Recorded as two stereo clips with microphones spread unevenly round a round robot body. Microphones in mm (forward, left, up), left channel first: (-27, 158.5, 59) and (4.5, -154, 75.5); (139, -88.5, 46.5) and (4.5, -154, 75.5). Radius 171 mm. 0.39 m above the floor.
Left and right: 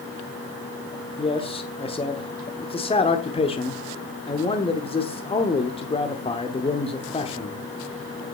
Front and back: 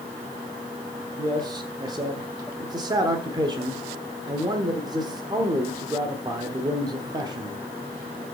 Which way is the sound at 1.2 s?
145° left.